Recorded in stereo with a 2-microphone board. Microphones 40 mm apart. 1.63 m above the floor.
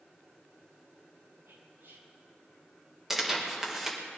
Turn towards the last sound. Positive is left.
turn(degrees=-10)  # may be behind; listen again after turning